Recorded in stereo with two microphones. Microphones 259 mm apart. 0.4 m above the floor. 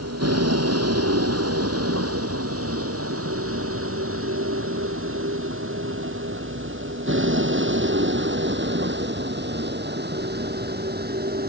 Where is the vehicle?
70° right (ahead or behind); by 11.5 s 35° right (ahead or behind).